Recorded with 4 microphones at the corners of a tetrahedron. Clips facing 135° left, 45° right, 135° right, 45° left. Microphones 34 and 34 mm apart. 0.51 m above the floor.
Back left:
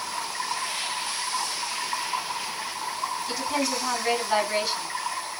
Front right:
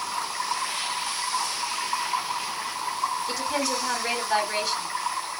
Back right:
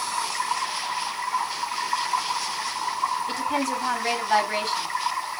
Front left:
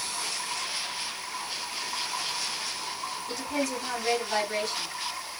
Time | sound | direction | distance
0.0 | running water | 140° right | 3.5 m
3.3 | a woman speaking | 140° right | 3.5 m